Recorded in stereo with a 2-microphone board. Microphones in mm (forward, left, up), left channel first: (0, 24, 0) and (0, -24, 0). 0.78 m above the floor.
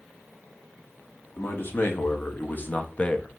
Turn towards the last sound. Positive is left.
turn(degrees=15)  # may be behind; listen again after turning